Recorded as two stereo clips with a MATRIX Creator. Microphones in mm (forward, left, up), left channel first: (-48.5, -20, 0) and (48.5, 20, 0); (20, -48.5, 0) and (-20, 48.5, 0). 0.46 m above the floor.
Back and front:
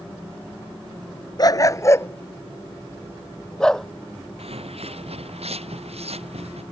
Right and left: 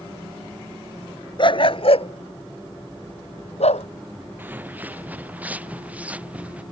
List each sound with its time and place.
1.4 s a dog barking: 105° right; by 3.9 s 70° right
4.4 s footsteps: 40° left; by 6.6 s 35° left